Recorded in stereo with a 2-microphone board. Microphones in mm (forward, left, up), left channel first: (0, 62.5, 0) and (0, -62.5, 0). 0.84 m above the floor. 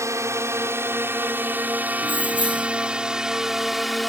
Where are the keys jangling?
40° right (ahead or behind).